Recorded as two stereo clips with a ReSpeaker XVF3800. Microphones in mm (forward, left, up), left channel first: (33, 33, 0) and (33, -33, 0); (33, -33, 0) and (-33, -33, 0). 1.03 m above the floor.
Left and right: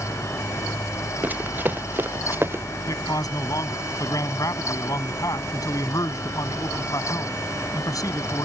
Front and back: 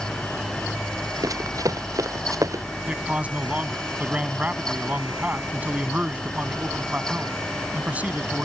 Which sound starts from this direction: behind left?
A man speaking, at 2.9 s.